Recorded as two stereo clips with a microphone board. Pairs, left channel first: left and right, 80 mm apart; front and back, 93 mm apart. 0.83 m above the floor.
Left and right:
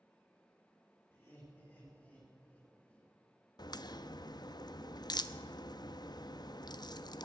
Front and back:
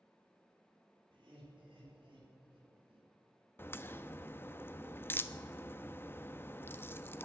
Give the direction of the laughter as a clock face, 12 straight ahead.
7 o'clock.